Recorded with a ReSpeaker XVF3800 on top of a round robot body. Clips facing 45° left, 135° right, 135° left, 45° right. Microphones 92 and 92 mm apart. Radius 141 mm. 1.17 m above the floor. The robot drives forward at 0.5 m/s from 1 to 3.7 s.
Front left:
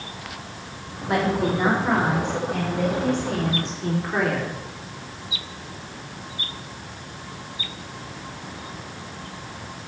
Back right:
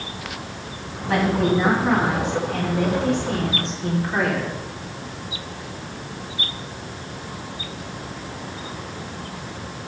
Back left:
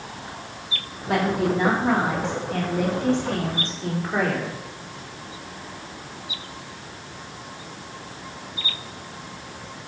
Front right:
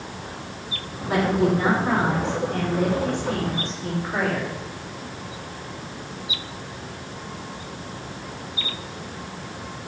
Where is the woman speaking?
110° left, 4 m; by 4.6 s 130° left, 4.5 m.